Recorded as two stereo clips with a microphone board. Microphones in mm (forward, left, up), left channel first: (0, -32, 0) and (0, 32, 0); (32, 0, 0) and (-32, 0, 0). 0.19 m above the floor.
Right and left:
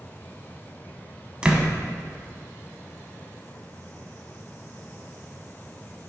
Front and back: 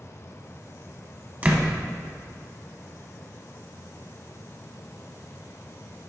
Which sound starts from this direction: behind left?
A door slam, at 1.4 s.